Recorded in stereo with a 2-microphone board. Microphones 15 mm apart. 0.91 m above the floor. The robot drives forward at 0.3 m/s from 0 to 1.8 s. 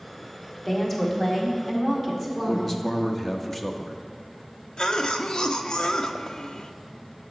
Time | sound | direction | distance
0.7 | a woman speaking | 25° left (ahead or behind) | 1.8 m
2.5 | a man speaking | 15° left (ahead or behind) | 0.8 m
4.8 | a cough | 70° left (ahead or behind) | 0.7 m